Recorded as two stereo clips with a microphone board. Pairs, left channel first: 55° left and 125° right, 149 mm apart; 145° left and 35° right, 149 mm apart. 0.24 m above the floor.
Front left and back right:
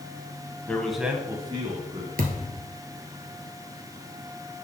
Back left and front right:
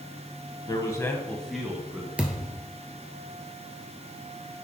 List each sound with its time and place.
0.7 s a man speaking: 120° left, 1.1 m; by 2.1 s 110° right, 1.5 m
2.2 s a thud: 115° right, 1.4 m